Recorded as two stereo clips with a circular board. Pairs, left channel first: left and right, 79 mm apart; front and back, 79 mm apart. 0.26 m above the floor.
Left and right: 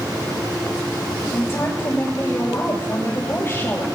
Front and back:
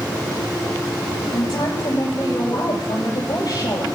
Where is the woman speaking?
30° left, 7.5 m.